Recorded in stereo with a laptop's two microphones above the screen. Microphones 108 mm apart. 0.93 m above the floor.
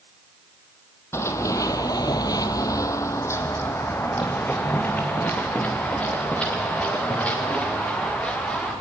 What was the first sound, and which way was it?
Running footsteps, 25° left (ahead or behind).